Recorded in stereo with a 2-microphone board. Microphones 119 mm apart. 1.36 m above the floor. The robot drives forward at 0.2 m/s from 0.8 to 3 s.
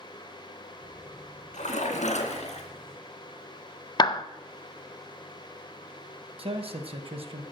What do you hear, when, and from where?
1.5 s a splash: 70° left (ahead or behind), 1.6 m; by 2.7 s 65° left (ahead or behind), 1.6 m
4.0 s a clap: 35° left (ahead or behind), 0.5 m
6.4 s a man speaking: 50° right (ahead or behind), 1.1 m